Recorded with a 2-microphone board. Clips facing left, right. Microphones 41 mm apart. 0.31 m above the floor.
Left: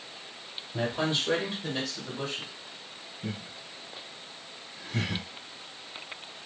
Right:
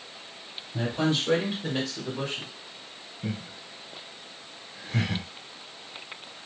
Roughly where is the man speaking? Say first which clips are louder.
Right 2 dB; left.